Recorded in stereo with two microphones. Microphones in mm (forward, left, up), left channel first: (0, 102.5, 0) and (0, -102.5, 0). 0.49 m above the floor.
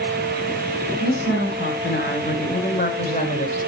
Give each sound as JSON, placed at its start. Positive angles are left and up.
{"t": 1.0, "sound": "a woman speaking", "side_deg": 70, "distance_m": 3.5}